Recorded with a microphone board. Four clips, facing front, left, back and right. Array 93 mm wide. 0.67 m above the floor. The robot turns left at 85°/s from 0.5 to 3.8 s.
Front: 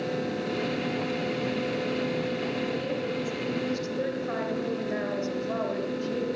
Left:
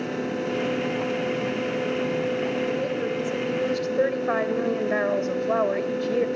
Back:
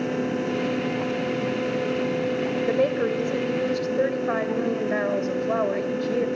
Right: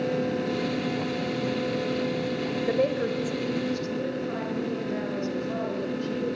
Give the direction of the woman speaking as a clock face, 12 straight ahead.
5 o'clock.